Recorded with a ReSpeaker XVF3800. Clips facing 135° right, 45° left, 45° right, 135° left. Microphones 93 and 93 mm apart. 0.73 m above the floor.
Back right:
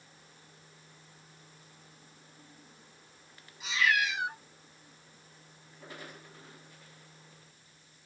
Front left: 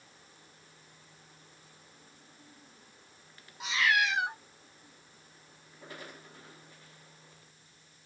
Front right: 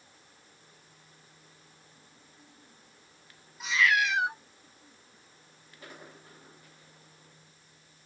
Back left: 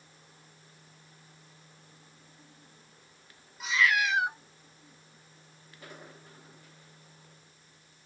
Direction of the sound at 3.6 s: 45° left.